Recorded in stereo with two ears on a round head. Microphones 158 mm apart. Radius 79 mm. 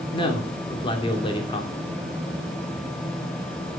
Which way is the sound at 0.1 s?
30° left (ahead or behind).